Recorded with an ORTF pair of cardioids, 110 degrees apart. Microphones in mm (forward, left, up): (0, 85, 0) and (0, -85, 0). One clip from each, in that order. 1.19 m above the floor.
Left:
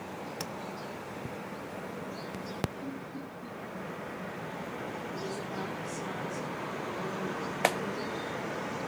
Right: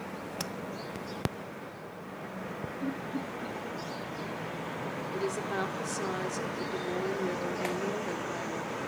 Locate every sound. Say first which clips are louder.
0.4 s tapping: right 2 dB; 10° right, 0.8 m
2.8 s laughter: right 5 dB; 35° right, 3 m
5.1 s a woman speaking: right 4 dB; 55° right, 3.5 m
7.6 s a clap: left 10 dB; 60° left, 1.5 m